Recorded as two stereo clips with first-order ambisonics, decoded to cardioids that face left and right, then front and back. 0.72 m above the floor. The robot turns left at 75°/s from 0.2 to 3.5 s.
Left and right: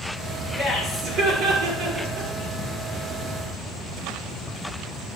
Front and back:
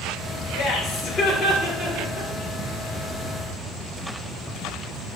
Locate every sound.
0.5 s laughter: 15° right, 2.5 m; by 2.3 s 145° right, 2.5 m